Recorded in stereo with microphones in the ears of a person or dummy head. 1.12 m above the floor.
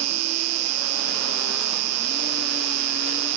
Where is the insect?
80° right.